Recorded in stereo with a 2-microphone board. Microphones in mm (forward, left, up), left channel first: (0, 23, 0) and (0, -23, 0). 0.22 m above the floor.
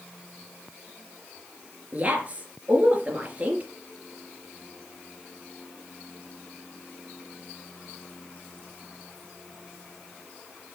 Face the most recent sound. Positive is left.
turn(degrees=-35)  # may be behind; listen again after turning